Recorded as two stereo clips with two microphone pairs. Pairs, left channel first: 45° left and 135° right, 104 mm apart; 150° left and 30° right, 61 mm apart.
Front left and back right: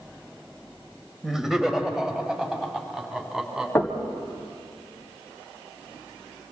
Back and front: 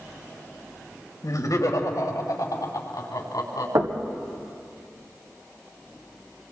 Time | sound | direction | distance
1.2 | laughter | 140° left | 2.5 m
3.8 | knocking | 25° right | 2 m